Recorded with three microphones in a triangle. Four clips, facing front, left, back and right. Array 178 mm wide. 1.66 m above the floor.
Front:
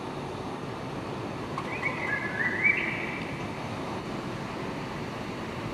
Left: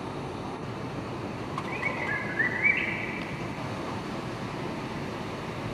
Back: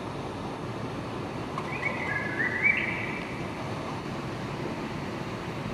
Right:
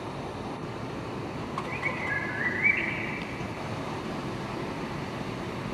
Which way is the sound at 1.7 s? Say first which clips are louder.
Left 1 dB, even; 125° left.